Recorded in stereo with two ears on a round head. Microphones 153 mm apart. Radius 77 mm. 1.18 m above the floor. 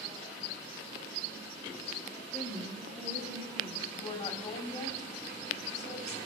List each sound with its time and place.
2.3 s a woman speaking: 5° left (ahead or behind), 2 m; by 3.8 s 10° right (ahead or behind), 4 m
3.9 s a woman speaking: 20° left (ahead or behind), 3 m